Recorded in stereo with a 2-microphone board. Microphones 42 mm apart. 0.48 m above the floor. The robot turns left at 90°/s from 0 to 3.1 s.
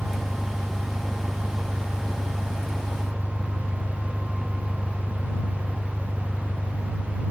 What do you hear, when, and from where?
0.0 s an engine running: 30° left; by 7.3 s 115° left